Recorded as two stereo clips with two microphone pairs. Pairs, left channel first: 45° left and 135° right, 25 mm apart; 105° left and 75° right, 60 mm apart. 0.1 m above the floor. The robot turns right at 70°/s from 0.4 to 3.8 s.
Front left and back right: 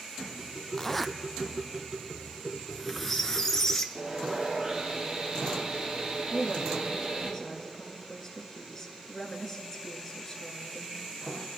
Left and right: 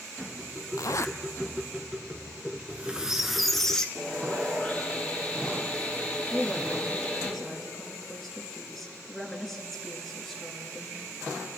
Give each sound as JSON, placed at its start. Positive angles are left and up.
{"t": 0.8, "sound": "a zipper", "azimuth_deg": 120, "distance_m": 0.5}
{"t": 2.5, "sound": "a squeak", "azimuth_deg": -45, "distance_m": 1.1}
{"t": 4.0, "sound": "sawing", "azimuth_deg": 170, "distance_m": 3.5}
{"t": 6.3, "sound": "a woman speaking", "azimuth_deg": 25, "distance_m": 1.8}